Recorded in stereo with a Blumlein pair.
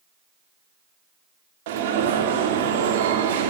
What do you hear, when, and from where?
1.7 s an alarm: 55° right, 2 m